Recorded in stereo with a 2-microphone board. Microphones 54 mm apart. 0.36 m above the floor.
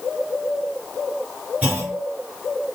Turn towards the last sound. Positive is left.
turn(degrees=-35)  # may be behind; listen again after turning